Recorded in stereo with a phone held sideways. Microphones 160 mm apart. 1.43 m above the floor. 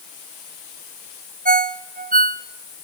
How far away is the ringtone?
About 0.9 m.